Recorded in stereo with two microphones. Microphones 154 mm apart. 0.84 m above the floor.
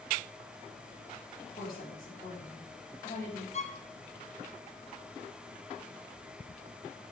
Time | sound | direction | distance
1.5 | a woman speaking | 75° left (ahead or behind) | 5 m
3.5 | a violin | 45° left (ahead or behind) | 0.8 m